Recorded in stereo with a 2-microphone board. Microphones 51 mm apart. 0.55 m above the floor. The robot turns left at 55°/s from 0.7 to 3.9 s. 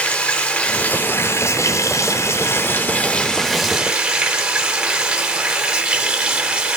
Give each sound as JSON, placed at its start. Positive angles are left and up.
{"t": 0.0, "sound": "running water", "azimuth_deg": 160, "distance_m": 0.7}